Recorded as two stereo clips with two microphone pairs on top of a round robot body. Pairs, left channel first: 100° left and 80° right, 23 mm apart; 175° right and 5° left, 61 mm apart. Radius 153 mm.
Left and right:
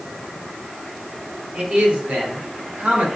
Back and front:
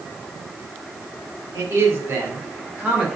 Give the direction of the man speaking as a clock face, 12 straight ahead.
1 o'clock.